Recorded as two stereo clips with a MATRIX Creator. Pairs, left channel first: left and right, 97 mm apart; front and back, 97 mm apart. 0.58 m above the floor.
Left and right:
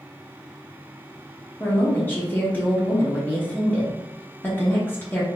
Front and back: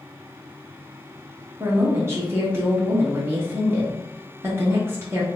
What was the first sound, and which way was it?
A woman speaking, 140° left.